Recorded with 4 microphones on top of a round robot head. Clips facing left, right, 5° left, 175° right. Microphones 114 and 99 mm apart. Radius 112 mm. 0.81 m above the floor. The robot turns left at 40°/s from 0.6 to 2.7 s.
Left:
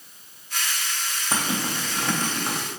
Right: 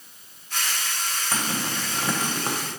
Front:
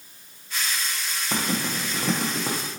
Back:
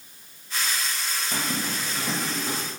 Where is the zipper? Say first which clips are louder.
Left 3 dB, front 4 dB; 25° left, 0.7 m; by 2.6 s 25° right, 0.7 m.